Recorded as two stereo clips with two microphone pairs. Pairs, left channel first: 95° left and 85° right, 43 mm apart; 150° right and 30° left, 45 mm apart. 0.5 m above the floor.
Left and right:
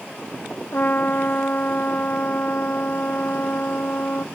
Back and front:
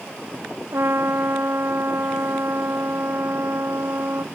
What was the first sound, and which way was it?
A trumpet, 50° left.